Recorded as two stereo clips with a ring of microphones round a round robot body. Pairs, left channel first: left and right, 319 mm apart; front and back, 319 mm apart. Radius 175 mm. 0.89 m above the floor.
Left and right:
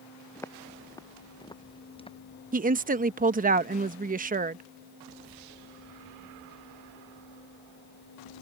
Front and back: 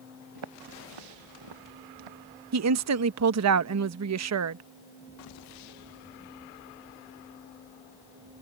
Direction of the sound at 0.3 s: 170° left.